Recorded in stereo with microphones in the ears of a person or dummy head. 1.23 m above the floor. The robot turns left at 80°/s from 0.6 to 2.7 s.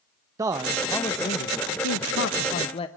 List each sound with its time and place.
0.4 s a man speaking: 160° right, 0.9 m; by 2.9 s 30° left, 0.9 m